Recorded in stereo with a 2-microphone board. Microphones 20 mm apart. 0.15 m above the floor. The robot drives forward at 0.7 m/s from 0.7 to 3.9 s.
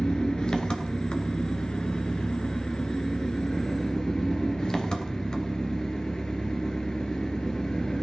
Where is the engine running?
40° left (ahead or behind), 1.7 m; by 8.0 s 35° left (ahead or behind), 1.9 m.